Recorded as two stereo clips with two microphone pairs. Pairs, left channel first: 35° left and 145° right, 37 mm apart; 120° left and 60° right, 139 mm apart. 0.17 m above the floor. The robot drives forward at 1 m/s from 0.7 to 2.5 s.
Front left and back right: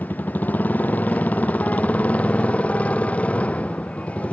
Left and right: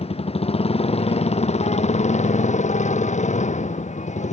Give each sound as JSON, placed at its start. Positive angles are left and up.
{"t": 0.0, "sound": "a motorcycle", "azimuth_deg": 75}